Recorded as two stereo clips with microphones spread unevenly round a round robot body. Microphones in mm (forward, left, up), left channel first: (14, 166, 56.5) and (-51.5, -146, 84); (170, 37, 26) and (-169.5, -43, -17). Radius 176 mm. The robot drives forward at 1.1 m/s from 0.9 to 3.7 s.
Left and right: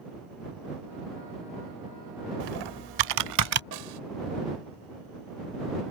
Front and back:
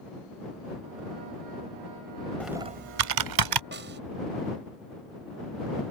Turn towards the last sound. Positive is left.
turn(degrees=-105)